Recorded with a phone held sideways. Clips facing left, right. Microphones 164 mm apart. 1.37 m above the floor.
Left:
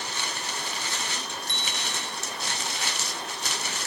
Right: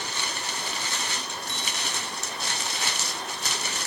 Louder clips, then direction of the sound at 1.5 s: Right 1 dB; 10° right (ahead or behind).